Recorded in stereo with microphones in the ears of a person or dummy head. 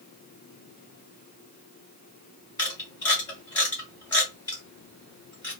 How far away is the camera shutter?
About 1.8 m.